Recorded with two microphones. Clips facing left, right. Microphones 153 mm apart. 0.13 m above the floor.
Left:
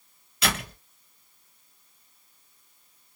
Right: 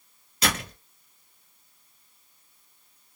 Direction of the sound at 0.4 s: 40° right (ahead or behind).